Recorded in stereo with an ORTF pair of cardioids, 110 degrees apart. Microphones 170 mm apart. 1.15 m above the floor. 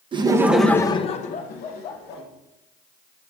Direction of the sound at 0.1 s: 30° right.